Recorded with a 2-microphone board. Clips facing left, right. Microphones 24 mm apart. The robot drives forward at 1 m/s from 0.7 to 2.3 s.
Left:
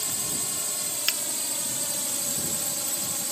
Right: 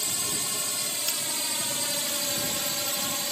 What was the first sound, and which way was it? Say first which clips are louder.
A drone: right 2 dB; 20° right (ahead or behind).